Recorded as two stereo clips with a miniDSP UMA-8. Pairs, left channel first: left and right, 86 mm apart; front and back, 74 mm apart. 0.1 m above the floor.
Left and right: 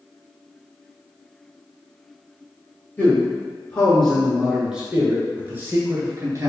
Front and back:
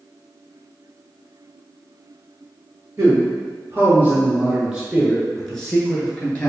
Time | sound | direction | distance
3.0 | a man speaking | 145° left | 1.4 m